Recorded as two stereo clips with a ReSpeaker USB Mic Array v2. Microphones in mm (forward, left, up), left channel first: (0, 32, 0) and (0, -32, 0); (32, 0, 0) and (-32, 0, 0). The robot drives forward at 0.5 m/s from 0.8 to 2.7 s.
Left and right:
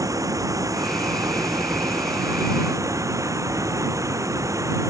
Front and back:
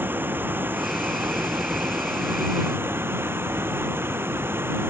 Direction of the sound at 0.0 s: 120° right.